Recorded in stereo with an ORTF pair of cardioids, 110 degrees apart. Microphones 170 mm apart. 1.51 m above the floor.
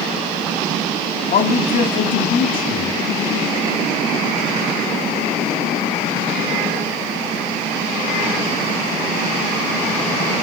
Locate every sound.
1.3 s a man speaking: 55° left, 3 m